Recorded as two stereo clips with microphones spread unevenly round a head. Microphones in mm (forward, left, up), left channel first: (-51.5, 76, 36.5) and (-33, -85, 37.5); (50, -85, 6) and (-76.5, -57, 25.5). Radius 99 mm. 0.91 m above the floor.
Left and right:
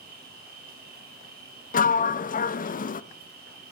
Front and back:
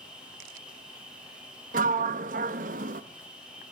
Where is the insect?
110° right, 7.5 m.